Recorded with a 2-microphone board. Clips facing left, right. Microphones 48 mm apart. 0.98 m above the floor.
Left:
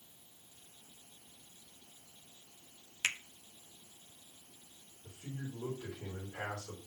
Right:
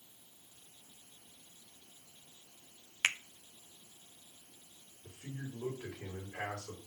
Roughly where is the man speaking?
Right.